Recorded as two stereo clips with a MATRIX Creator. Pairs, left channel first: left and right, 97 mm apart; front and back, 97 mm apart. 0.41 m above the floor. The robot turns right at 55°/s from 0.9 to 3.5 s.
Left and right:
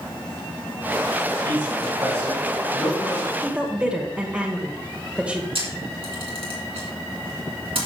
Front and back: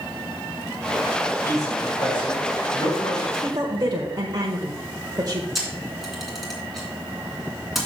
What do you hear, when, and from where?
1.4 s a man speaking: 60° right, 4 m; by 3.3 s 40° left, 4 m
3.4 s a woman speaking: 165° right, 1.1 m; by 5.5 s 160° right, 1.1 m
5.5 s a camera shutter: 95° right, 2.5 m